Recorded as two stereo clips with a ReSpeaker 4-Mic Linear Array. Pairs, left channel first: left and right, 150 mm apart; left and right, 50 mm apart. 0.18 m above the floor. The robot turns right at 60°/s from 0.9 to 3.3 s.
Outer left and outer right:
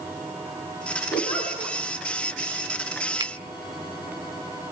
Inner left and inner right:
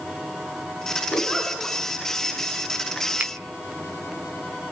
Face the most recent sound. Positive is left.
turn(degrees=-25)  # may be behind; listen again after turning